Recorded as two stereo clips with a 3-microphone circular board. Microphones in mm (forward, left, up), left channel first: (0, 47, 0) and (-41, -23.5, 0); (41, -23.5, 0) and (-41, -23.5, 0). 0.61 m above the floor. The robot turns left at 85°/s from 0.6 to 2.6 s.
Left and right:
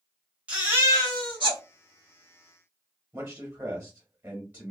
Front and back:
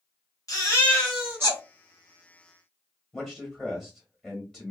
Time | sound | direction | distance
0.5 | a baby crying | 50° right | 1.3 m
3.1 | a man speaking | 75° right | 1.1 m